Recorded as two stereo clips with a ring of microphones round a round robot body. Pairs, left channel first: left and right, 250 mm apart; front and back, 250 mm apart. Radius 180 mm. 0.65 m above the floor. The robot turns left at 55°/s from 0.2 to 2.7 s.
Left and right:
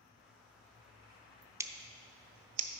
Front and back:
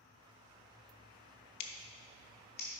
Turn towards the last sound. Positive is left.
turn(degrees=-70)